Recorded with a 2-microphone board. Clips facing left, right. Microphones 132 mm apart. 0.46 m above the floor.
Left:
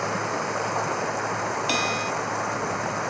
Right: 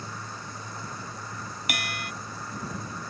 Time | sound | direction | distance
0.0 | running water | 75° left (ahead or behind) | ?
1.7 | a bell | 30° left (ahead or behind) | ?